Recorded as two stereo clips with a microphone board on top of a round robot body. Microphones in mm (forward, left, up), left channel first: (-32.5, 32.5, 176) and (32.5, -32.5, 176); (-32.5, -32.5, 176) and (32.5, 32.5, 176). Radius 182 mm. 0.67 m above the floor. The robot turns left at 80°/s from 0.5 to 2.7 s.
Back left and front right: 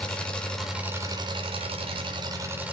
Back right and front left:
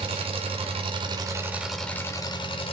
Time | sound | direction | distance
0.0 | an engine running | 55° left | 2 m